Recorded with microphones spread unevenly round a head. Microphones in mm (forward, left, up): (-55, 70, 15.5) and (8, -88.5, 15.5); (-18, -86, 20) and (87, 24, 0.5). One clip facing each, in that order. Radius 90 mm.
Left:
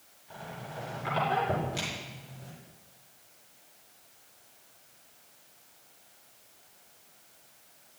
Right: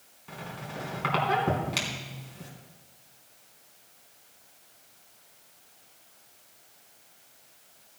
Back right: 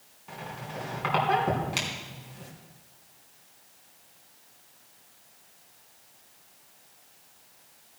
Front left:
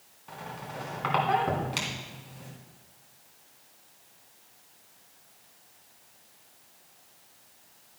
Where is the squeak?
50° right, 3.5 m.